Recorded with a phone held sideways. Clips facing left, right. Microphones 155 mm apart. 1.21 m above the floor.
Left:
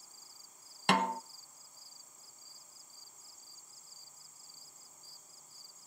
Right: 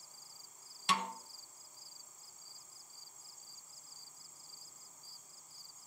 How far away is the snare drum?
About 0.7 m.